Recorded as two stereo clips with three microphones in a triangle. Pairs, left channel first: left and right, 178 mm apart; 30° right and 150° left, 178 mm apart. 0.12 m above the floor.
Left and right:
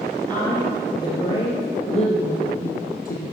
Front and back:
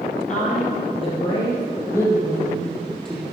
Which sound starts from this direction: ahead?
A woman speaking, at 0.3 s.